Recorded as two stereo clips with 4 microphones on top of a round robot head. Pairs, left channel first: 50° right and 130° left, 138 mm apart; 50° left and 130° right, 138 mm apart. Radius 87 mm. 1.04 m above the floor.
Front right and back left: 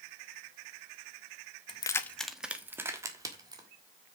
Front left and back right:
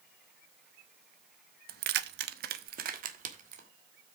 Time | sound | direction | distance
1.7 | keys jangling | 105° right | 0.7 m